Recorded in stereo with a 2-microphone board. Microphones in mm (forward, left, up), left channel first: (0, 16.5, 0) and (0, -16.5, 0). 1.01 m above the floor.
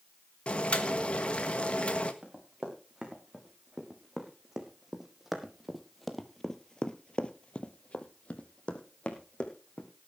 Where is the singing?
I don't hear singing.